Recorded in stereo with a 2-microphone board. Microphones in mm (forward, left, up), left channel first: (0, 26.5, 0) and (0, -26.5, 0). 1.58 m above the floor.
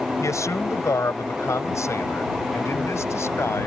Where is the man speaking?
65° left (ahead or behind); by 3.7 s 55° left (ahead or behind).